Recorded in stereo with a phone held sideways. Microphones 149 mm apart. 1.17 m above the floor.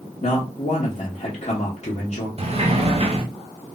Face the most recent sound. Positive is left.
turn(degrees=-40)  # may be behind; listen again after turning